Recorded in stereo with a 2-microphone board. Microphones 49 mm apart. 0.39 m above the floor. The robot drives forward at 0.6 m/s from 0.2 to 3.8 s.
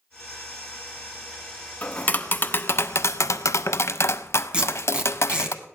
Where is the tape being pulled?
20° right (ahead or behind), 2.5 m.